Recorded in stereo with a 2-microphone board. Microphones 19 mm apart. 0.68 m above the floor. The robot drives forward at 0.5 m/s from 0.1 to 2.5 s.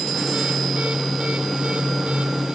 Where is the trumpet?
I don't hear a trumpet.